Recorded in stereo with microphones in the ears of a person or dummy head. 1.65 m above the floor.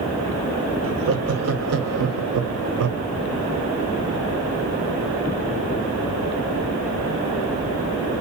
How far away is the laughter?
About 1.8 m.